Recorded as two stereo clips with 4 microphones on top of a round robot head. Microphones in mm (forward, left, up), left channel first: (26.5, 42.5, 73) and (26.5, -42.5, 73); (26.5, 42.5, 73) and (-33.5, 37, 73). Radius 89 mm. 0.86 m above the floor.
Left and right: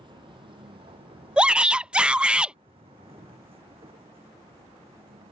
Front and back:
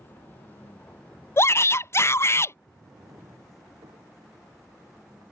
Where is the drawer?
135° right.